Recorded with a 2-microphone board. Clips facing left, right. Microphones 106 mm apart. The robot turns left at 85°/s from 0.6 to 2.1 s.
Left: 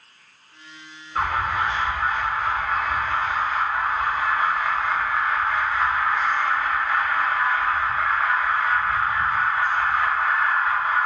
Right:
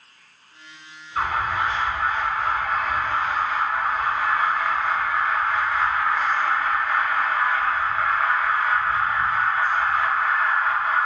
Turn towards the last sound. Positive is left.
turn(degrees=-5)